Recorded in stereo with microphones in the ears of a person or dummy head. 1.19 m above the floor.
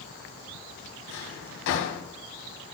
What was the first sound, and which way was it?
A drawer, 65° left (ahead or behind).